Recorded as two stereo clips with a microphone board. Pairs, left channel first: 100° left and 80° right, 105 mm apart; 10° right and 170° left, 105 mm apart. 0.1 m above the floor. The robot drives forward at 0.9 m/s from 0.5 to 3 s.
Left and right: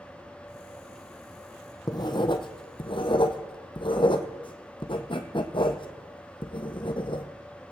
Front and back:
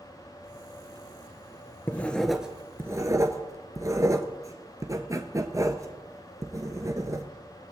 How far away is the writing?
About 1.2 m.